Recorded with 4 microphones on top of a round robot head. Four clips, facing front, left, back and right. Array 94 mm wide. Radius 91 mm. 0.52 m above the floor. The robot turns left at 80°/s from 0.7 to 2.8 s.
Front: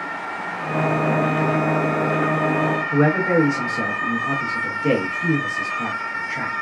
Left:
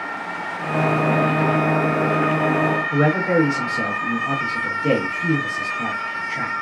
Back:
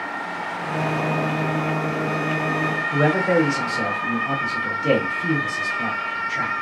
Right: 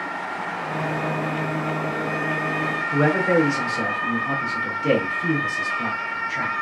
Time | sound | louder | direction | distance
2.9 | a man speaking | right 2 dB, even | 25° left | 1.4 m